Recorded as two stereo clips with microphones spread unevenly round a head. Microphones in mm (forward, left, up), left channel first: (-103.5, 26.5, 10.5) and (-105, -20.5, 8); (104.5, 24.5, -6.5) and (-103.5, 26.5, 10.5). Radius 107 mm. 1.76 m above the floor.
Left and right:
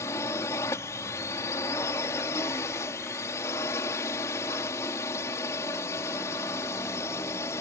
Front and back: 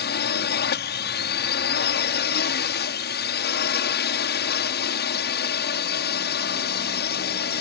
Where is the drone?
40° left.